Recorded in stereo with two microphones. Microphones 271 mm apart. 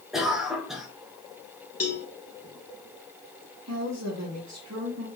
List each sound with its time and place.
0.1 s a cough: centre (ahead or behind), 1.2 m
1.8 s a cowbell: 60° left (ahead or behind), 0.7 m
3.7 s a woman speaking: 75° right (ahead or behind), 1.1 m